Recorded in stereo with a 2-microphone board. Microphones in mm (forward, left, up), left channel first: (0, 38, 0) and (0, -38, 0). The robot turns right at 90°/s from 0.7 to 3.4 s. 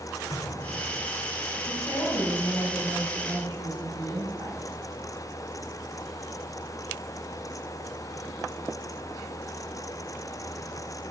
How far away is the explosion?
About 2 m.